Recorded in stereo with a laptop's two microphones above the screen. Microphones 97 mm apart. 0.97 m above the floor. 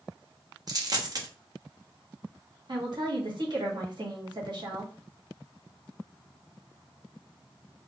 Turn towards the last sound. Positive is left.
turn(degrees=-50)  # may be behind; listen again after turning